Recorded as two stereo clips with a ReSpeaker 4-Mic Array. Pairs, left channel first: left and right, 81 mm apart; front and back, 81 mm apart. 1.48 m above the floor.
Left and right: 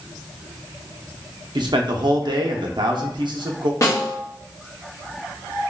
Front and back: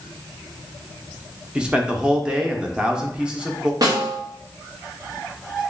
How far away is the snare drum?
About 1.1 m.